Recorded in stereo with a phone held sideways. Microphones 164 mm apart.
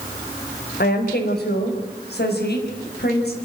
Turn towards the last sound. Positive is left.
turn(degrees=80)